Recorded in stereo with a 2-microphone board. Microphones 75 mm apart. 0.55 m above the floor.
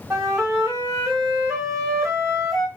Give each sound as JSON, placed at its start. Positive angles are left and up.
{"t": 0.1, "sound": "a flute", "side_deg": -45, "distance_m": 1.3}